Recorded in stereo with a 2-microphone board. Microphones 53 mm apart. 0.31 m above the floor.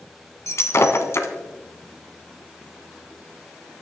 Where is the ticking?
No ticking in this recording.